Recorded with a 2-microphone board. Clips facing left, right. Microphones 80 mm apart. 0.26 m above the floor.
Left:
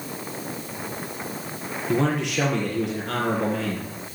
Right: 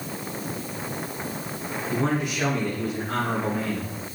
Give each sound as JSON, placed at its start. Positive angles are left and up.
{"t": 1.9, "sound": "a man speaking", "side_deg": 75, "distance_m": 7.0}